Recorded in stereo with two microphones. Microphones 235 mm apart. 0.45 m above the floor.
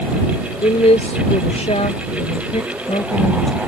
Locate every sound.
0.6 s a woman speaking: 30° left (ahead or behind); by 3.6 s 25° left (ahead or behind)